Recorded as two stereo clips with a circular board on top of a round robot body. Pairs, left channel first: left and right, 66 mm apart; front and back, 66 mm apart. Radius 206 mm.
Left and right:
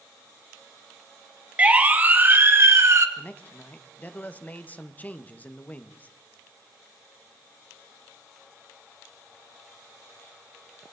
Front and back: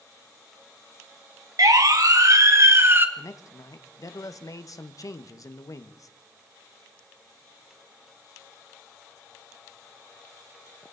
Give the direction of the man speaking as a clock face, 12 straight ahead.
11 o'clock.